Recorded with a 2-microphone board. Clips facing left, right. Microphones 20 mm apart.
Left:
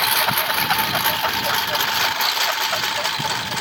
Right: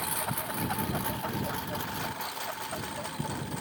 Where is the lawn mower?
75° left (ahead or behind); by 3.6 s 85° left.